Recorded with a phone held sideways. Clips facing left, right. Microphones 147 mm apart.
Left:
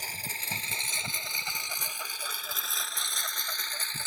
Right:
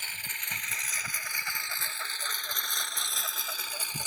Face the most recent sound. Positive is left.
turn(degrees=-15)  # may be behind; listen again after turning